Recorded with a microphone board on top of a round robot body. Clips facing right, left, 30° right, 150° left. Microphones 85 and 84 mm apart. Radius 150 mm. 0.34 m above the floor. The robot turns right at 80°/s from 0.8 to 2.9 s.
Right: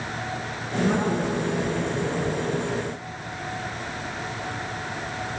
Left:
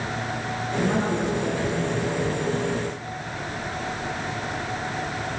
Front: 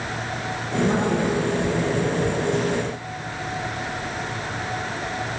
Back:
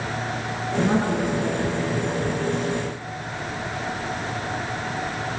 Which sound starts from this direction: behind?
A woman speaking, at 0.8 s.